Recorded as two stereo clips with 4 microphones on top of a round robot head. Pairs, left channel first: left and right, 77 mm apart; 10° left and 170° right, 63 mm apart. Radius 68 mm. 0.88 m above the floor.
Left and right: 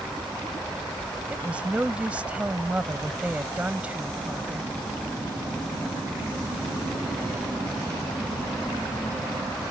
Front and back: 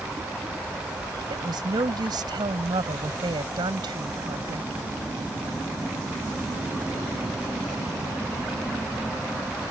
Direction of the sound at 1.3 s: 165° right.